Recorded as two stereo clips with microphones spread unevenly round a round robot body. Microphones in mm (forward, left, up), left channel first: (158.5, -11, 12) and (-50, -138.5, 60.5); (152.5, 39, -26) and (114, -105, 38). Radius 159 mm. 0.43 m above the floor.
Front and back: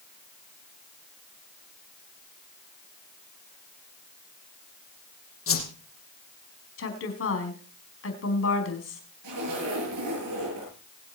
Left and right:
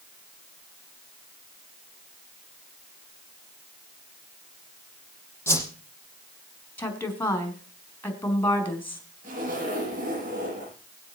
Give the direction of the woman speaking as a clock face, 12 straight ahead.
12 o'clock.